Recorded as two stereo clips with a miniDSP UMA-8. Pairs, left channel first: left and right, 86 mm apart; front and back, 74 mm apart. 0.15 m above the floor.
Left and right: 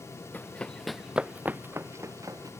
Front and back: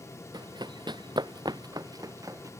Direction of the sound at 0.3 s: 160° left.